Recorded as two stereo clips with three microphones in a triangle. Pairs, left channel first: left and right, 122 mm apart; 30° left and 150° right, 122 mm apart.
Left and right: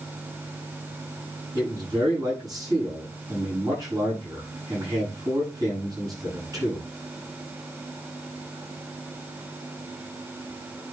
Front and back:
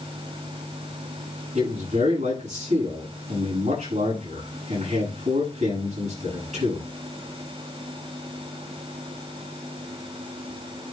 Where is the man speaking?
150° right, 7.5 m.